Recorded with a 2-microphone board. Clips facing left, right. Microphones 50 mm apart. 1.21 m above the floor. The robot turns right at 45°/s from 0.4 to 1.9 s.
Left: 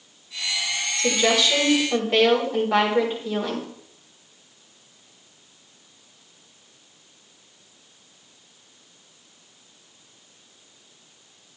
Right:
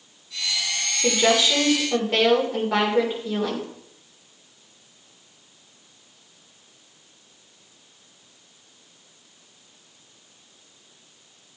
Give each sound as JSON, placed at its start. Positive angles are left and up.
{"t": 1.0, "sound": "a woman speaking", "azimuth_deg": -35, "distance_m": 3.5}